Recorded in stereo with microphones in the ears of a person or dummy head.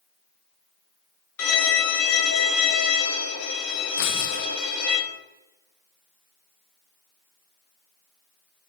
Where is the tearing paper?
60° left (ahead or behind), 0.7 m.